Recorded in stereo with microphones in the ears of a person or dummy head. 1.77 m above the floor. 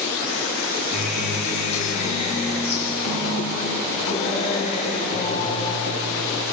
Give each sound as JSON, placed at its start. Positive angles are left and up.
{"t": 0.9, "sound": "a guitar", "side_deg": 35, "distance_m": 7.0}